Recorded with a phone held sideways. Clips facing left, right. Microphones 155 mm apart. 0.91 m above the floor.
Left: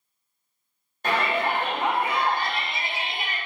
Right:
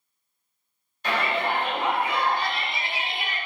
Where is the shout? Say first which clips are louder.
Left 1 dB; 45° left (ahead or behind), 1.2 m.